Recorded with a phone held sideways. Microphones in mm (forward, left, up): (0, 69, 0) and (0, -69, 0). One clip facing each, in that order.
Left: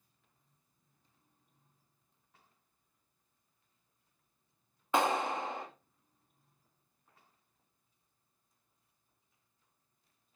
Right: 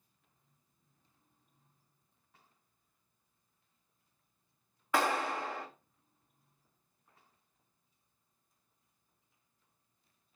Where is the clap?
20° left (ahead or behind), 2 m.